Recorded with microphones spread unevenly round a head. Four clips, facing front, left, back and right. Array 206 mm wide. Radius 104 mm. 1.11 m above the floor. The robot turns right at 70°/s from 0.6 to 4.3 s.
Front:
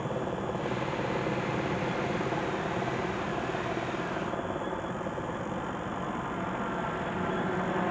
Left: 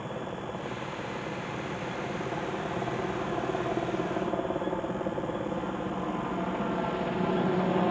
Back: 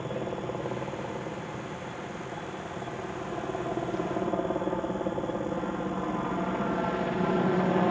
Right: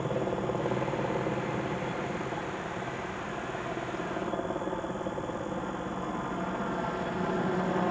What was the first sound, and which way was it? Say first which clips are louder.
A helicopter: right 5 dB, front 1 dB; 100° right.